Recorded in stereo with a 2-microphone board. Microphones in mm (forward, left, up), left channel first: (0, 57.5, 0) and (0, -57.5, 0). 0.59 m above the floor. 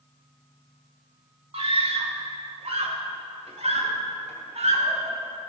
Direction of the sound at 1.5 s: 55° right (ahead or behind).